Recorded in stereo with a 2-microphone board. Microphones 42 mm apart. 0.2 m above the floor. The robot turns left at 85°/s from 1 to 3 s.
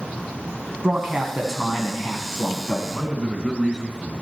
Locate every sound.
0.8 s a man speaking: 140° right, 1.3 m; by 2.8 s 65° left, 1.3 m
2.9 s a man speaking: 30° right (ahead or behind), 2.0 m; by 4.2 s 25° right (ahead or behind), 2.0 m